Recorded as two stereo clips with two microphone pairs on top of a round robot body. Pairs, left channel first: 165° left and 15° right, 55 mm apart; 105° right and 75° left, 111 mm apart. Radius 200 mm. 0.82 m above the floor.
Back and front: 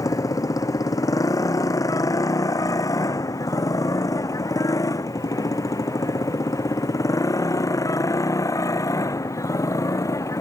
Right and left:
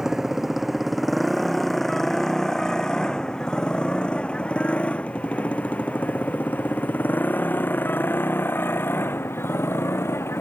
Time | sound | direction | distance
0.0 | a motorcycle | 160° left | ?